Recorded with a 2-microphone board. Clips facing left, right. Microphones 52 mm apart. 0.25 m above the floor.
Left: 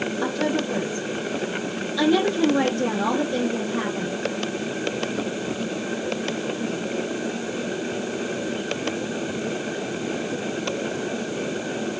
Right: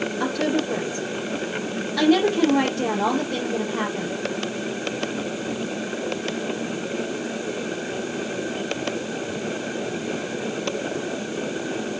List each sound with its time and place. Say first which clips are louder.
0.2 s a woman speaking: right 1 dB; 65° right (ahead or behind), 6 m